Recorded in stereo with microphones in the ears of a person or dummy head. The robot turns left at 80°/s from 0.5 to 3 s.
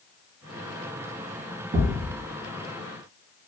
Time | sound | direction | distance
1.7 | a thud | 45° right (ahead or behind) | 0.9 m